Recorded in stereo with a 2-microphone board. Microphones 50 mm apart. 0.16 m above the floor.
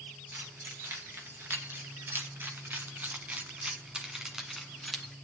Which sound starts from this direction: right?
Keys jangling, at 0.3 s.